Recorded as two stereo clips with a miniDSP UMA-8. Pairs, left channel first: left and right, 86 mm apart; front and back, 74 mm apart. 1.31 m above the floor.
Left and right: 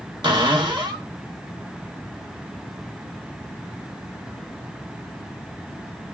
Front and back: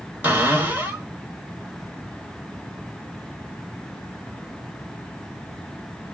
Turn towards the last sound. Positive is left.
turn(degrees=-115)